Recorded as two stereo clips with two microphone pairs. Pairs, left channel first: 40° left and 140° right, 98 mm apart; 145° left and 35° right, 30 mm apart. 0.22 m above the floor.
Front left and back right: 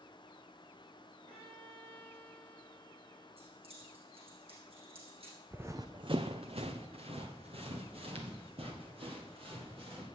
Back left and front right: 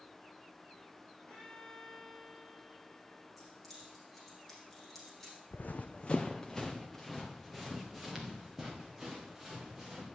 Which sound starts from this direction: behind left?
Running footsteps, at 5.5 s.